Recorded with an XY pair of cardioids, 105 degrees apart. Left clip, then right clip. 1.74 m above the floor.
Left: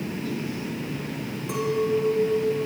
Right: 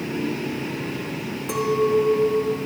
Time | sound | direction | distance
1.5 | a clink | 55° right | 4.5 m